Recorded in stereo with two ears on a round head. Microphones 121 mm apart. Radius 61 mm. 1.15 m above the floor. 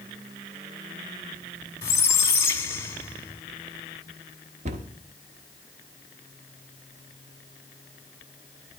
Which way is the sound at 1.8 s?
20° left (ahead or behind).